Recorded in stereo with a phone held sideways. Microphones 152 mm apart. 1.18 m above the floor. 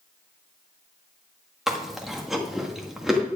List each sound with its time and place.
1.7 s chewing: centre (ahead or behind), 1.5 m